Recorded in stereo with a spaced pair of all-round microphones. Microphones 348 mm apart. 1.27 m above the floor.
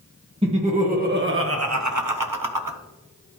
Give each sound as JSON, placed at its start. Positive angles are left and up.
{"t": 0.4, "sound": "laughter", "side_deg": -15, "distance_m": 1.8}